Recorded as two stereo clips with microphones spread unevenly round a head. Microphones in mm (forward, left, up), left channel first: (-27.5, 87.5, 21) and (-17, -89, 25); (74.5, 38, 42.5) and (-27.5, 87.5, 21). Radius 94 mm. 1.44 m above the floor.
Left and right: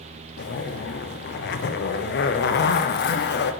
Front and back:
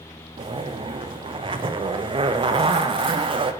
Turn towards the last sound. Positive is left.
turn(degrees=115)